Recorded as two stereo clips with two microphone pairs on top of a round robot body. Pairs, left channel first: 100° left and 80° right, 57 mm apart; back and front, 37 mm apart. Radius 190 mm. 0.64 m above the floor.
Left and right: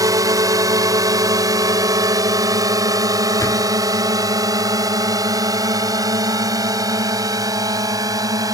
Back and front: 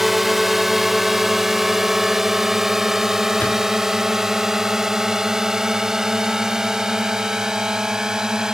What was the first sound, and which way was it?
A drone, 85° right.